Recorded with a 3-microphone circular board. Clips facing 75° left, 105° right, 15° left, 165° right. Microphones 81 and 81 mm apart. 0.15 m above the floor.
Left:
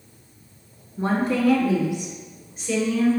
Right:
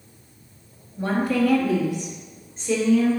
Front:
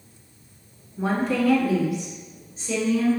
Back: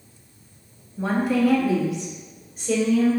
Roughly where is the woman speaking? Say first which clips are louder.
Even, back 2 dB; left.